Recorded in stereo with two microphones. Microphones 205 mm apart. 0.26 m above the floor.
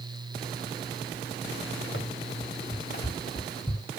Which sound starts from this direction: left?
Running footsteps, at 1.9 s.